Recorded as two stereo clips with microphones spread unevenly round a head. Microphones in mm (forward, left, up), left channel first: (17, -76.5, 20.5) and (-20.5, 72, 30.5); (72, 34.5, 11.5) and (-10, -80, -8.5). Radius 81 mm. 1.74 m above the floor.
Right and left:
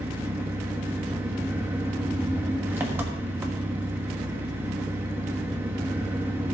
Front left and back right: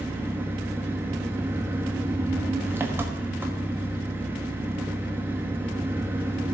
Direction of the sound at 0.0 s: 155° left.